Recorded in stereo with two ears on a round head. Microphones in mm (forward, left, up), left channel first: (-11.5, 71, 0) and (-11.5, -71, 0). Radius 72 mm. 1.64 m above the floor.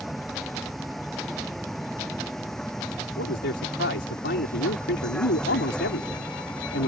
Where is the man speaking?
85° left.